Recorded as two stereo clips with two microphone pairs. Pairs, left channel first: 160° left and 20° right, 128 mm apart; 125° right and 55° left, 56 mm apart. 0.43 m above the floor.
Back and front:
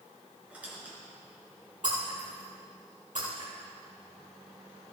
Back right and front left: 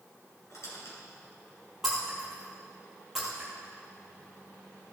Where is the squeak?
95° right, 3.5 m.